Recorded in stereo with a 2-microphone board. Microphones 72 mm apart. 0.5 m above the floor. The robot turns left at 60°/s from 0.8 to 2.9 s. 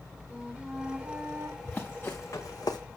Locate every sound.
0.3 s a flute: 20° right, 1.9 m; by 1.5 s 65° right, 1.9 m
1.6 s running footsteps: 15° left (ahead or behind), 3.5 m; by 2.8 s 70° left (ahead or behind), 1.9 m